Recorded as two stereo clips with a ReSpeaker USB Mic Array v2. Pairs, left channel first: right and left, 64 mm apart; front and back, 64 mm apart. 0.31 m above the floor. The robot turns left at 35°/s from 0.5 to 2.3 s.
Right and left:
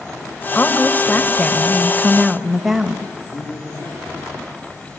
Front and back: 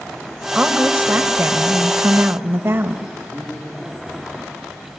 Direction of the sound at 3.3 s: 90° right.